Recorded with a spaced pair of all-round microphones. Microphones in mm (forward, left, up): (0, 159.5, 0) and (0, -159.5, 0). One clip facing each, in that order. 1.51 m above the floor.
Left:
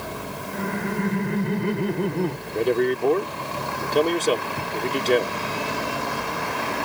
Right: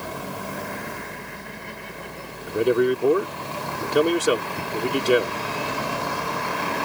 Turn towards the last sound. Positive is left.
turn(degrees=-15)  # may be behind; listen again after turning